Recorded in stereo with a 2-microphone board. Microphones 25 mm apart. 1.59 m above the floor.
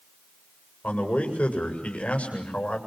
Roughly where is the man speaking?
Left.